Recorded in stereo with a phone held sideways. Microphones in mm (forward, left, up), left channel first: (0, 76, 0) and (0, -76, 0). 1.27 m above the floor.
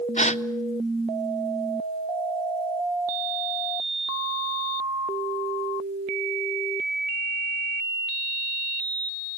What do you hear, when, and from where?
0.2 s a gasp: 45° left (ahead or behind), 0.6 m